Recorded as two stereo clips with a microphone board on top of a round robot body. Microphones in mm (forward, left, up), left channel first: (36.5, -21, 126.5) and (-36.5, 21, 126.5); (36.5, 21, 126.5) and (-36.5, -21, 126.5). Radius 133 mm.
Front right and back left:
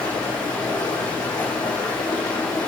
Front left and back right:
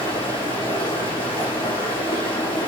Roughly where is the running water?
Ahead.